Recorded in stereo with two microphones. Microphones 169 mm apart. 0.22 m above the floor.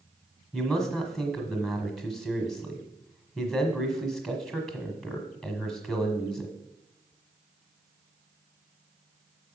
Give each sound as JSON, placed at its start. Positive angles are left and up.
{"t": 0.5, "sound": "a man speaking", "side_deg": 0, "distance_m": 1.2}